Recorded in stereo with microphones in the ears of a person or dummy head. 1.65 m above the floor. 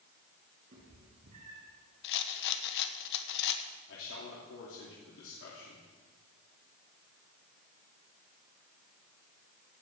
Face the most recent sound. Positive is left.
turn(degrees=75)  # may be behind; listen again after turning